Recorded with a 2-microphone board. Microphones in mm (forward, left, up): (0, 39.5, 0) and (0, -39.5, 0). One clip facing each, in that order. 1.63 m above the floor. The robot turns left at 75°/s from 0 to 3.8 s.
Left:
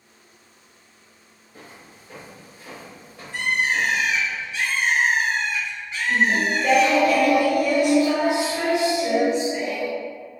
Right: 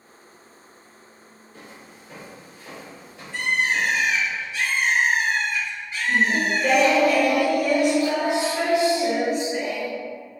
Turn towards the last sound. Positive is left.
turn(degrees=-50)  # may be behind; listen again after turning